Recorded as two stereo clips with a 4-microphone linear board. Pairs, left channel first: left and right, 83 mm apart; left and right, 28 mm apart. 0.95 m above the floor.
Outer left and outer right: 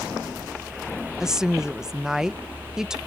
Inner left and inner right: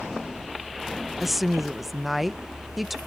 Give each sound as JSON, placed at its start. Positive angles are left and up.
{"t": 1.2, "sound": "a woman speaking", "side_deg": -5}